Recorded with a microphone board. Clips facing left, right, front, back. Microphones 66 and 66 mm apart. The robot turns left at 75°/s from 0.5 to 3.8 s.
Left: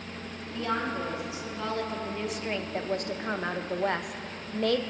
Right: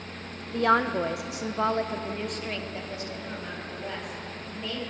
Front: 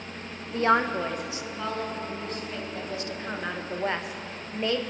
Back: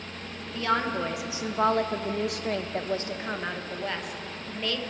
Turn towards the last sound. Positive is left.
turn(degrees=65)